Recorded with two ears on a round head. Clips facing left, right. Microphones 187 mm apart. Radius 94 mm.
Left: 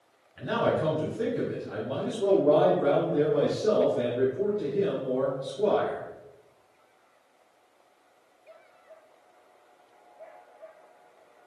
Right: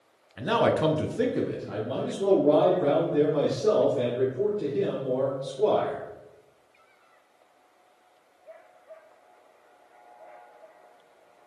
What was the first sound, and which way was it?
A man speaking, 60° right (ahead or behind).